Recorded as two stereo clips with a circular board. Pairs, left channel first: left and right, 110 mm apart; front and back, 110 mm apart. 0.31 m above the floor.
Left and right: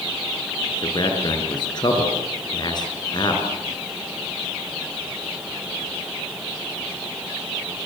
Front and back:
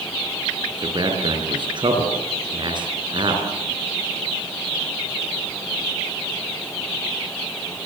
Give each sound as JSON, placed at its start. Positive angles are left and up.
{"t": 0.8, "sound": "a man speaking", "azimuth_deg": 135, "distance_m": 6.0}